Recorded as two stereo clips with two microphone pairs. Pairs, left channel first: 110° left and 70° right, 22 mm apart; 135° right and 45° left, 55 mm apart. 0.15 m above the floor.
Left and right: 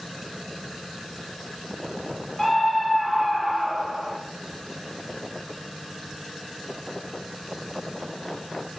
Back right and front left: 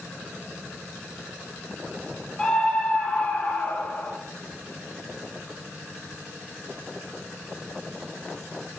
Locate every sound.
2.4 s a scream: straight behind, 1.8 m; by 4.1 s 115° right, 2 m